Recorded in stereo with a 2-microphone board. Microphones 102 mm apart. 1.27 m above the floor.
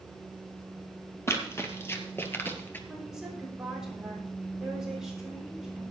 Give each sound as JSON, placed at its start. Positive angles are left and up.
{"t": 1.3, "sound": "running footsteps", "side_deg": 25, "distance_m": 2.0}
{"t": 2.9, "sound": "a woman speaking", "side_deg": -5, "distance_m": 6.0}